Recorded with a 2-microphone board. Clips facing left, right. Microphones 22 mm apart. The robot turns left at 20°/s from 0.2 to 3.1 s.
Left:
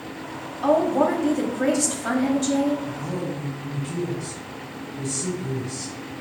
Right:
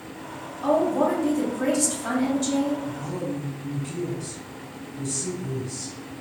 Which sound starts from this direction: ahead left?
A woman speaking, at 0.6 s.